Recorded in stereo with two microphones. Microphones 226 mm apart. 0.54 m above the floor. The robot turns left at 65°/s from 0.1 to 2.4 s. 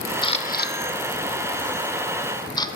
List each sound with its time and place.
0.2 s a camera shutter: 20° left (ahead or behind), 0.7 m; by 2.7 s 15° left (ahead or behind), 0.7 m